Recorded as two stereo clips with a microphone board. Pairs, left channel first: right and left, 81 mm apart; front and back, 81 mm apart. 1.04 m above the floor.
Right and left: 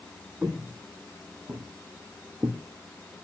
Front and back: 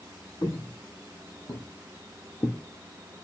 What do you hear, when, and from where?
0.4 s footsteps: 10° left, 2.5 m; by 2.6 s 45° left, 2.5 m